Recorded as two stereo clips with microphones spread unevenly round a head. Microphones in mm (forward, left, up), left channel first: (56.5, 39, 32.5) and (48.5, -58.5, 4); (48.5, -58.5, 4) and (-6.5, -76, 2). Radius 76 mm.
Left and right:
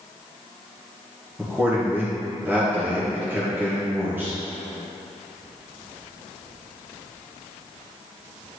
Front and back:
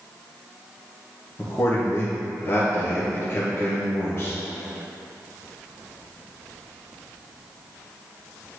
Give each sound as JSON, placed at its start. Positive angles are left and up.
{"t": 1.4, "sound": "a man speaking", "azimuth_deg": -30, "distance_m": 1.2}